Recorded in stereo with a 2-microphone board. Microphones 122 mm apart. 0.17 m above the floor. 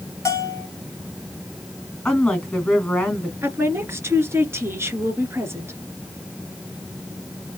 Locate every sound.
0.2 s a bell: 25° left (ahead or behind), 1.8 m
2.0 s a woman speaking: 5° left (ahead or behind), 1.7 m
3.4 s a woman speaking: 20° right (ahead or behind), 2.0 m